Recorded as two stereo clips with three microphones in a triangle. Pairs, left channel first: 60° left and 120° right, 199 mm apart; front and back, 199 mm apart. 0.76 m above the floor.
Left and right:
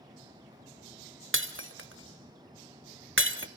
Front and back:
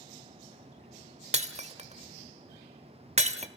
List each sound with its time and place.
1.3 s breaking glass: 125° right, 1.4 m